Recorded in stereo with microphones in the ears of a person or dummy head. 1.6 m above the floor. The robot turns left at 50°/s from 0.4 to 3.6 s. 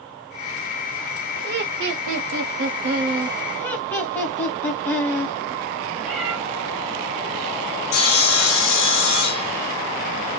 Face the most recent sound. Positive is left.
turn(degrees=85)